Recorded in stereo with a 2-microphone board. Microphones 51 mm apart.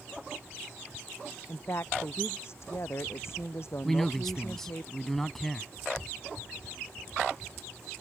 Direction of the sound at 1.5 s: 55° left (ahead or behind).